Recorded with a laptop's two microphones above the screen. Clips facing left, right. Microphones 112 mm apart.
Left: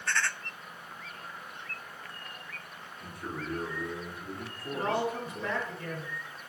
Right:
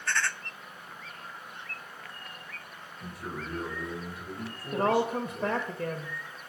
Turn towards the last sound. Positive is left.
turn(degrees=-60)  # may be behind; listen again after turning